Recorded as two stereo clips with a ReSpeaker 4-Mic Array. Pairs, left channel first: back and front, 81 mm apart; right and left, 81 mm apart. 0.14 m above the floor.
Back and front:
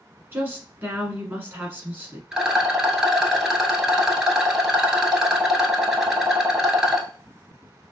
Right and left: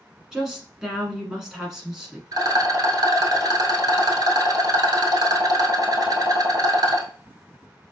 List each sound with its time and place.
0.3 s a woman speaking: 15° left, 1.1 m
2.3 s a rattle: 80° left, 0.9 m